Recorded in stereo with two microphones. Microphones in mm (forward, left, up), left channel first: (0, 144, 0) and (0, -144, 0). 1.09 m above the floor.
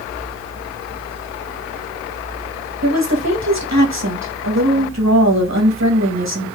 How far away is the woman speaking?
About 1.3 m.